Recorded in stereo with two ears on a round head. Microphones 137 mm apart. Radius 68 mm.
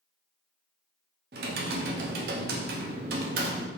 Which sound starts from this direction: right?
Typing on a keyboard, at 1.3 s.